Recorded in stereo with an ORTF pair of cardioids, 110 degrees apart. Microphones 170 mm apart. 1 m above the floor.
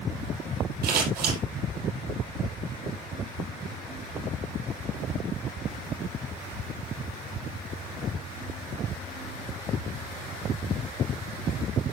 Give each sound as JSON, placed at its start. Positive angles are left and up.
{"t": 0.8, "sound": "scissors", "azimuth_deg": -70, "distance_m": 9.0}